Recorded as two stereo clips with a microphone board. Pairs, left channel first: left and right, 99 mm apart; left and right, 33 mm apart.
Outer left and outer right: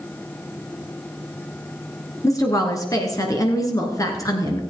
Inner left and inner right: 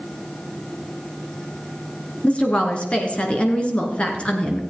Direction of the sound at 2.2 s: 35° left (ahead or behind).